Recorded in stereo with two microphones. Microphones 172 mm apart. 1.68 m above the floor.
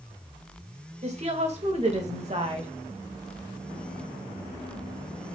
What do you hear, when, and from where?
1.0 s a woman speaking: 40° right (ahead or behind), 2.5 m